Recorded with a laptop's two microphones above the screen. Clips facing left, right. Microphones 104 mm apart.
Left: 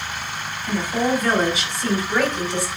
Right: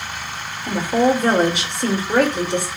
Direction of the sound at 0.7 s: 60° right (ahead or behind).